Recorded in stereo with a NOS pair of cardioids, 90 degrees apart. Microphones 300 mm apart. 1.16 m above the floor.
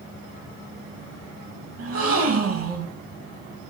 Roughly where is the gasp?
Ahead right.